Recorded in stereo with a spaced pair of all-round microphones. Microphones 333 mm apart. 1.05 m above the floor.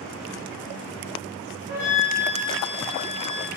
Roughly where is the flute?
Left.